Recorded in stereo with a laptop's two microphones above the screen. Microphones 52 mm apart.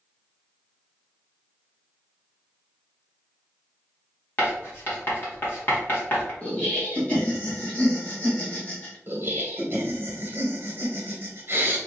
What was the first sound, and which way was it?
Writing, 45° left (ahead or behind).